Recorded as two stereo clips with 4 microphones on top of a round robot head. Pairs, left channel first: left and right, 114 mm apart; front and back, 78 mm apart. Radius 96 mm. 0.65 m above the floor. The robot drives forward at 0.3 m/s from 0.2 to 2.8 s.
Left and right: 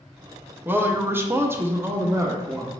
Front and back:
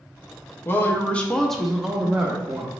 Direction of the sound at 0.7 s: 30° right.